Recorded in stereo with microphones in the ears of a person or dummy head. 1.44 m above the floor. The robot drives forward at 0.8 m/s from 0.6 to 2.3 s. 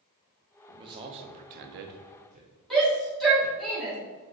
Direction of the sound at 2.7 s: Centre (ahead or behind).